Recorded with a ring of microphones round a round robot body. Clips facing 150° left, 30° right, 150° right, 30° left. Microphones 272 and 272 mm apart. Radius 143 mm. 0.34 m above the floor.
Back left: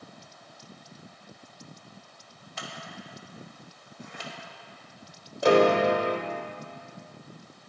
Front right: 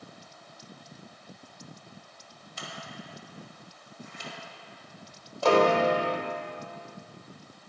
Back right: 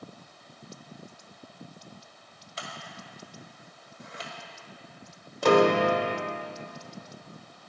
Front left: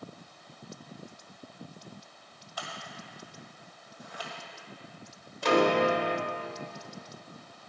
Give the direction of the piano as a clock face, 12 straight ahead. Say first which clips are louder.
Back left 2 dB, back right 4 dB; 5 o'clock.